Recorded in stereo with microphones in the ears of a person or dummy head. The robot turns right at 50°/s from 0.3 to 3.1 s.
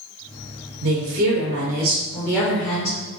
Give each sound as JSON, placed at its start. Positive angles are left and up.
{"t": 0.8, "sound": "a woman speaking", "azimuth_deg": -65, "distance_m": 0.6}